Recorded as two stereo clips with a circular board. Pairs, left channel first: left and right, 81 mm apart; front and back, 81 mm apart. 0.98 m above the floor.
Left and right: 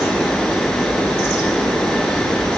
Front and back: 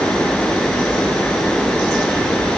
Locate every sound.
Only background noise.